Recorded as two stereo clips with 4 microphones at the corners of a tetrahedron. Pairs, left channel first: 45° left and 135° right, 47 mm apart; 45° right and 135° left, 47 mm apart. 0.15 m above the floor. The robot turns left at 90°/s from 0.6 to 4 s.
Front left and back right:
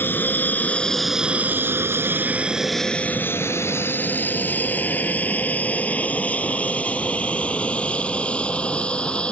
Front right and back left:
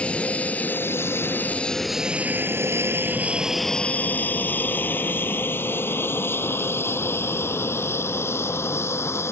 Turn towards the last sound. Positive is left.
turn(degrees=-25)